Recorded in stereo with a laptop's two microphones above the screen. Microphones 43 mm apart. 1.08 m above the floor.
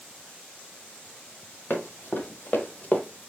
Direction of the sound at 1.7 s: 55° left (ahead or behind).